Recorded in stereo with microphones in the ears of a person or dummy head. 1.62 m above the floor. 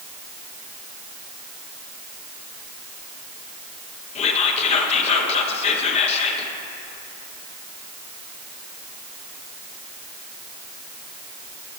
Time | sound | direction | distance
4.2 | whispering | 40° left (ahead or behind) | 1.3 m